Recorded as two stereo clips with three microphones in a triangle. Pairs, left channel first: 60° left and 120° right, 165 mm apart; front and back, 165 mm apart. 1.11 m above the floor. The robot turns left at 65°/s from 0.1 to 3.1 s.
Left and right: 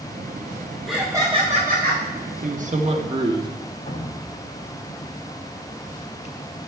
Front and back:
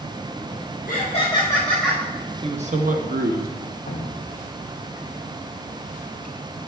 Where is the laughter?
30° right, 0.6 m; by 2.0 s 105° right, 0.6 m.